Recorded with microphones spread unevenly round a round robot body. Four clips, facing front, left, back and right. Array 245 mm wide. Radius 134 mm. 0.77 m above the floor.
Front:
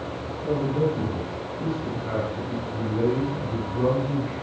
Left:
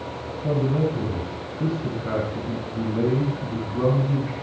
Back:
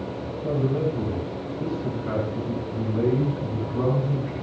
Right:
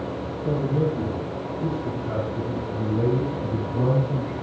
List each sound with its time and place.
0.4 s a man speaking: 115° left, 9 m